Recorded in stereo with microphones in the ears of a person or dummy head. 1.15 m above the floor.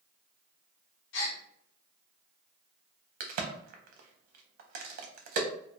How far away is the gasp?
About 0.8 m.